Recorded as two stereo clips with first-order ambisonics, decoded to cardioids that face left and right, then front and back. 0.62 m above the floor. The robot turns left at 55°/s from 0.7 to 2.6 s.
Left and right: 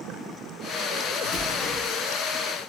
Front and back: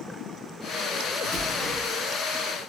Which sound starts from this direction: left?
An explosion, at 1.2 s.